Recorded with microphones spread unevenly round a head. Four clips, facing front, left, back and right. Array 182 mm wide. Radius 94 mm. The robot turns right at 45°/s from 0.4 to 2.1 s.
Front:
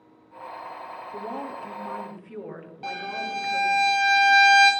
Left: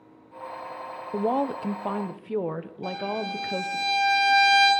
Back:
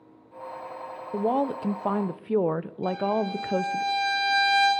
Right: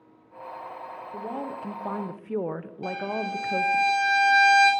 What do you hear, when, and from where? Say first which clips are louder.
1.1 s a woman speaking: left 9 dB, back 10 dB; 135° left, 0.7 m; by 3.8 s straight behind, 0.7 m
2.8 s a violin: even, back 6 dB; 20° right, 8 m